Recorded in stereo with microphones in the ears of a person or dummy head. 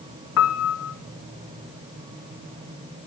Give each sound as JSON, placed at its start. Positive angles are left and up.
{"t": 0.4, "sound": "a piano", "side_deg": 75, "distance_m": 1.9}